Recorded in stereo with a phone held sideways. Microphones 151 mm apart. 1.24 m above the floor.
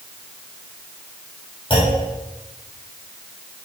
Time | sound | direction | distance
1.7 | a clunk | 35° left (ahead or behind) | 5.5 m